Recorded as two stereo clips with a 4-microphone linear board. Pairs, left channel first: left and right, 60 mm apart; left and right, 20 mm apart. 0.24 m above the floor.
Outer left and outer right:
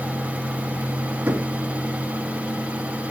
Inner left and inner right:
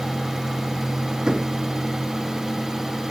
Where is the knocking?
30° right (ahead or behind), 1.6 m.